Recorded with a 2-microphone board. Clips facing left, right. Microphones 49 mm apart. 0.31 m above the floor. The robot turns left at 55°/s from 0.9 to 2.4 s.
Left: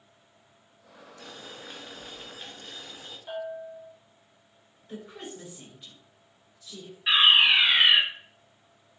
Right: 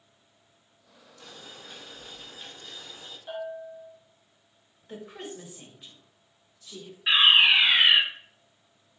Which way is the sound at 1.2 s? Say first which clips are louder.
Left 2 dB; 85° left.